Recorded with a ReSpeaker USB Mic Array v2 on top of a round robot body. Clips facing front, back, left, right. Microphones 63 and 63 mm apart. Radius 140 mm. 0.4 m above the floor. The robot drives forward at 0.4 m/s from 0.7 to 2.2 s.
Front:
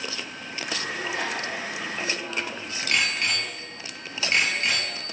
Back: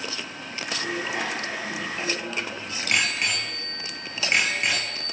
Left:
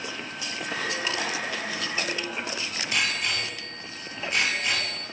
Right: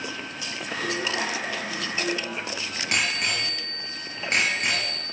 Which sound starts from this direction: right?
A bicycle bell, at 0.8 s.